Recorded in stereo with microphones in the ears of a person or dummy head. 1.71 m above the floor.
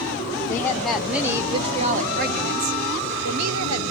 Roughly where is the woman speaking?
Centre.